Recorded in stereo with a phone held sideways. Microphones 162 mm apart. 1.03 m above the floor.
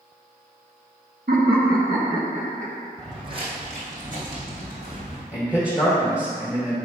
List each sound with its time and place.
1.3 s laughter: 75° right (ahead or behind), 1.7 m; by 2.9 s 45° right (ahead or behind), 1.2 m
3.0 s footsteps: 25° right (ahead or behind), 2.5 m; by 5.2 s 70° right (ahead or behind), 3.5 m
5.3 s a man speaking: 10° right (ahead or behind), 1.5 m